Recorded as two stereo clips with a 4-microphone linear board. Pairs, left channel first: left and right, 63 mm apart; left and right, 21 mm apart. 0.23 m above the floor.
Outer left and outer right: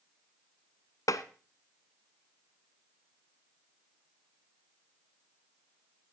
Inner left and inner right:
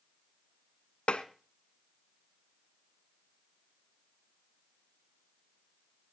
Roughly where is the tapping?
Left.